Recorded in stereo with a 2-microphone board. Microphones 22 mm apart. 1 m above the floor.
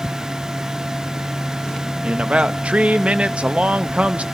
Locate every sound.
2.0 s a man speaking: 70° right (ahead or behind), 0.9 m